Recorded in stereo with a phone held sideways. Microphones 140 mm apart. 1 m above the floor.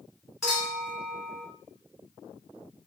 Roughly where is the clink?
Centre.